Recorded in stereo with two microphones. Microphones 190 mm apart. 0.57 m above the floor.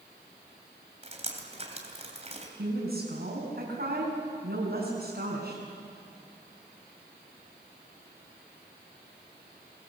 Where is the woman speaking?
55° right (ahead or behind), 5 m.